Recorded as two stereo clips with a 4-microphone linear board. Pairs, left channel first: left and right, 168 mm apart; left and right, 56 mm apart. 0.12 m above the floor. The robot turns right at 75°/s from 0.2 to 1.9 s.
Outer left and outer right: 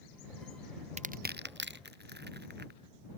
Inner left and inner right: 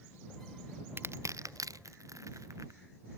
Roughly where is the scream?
No scream in this recording.